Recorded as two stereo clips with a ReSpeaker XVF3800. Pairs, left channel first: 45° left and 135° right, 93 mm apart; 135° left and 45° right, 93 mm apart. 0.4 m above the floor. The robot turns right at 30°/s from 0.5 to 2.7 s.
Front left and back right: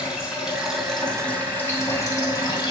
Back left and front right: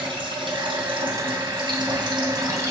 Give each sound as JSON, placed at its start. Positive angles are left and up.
{"t": 0.0, "sound": "running water", "azimuth_deg": -55, "distance_m": 2.5}